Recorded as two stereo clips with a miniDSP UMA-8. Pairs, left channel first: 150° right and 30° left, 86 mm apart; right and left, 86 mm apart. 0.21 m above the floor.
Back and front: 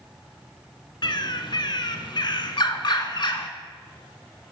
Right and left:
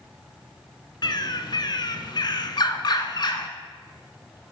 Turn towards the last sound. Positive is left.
turn(degrees=-120)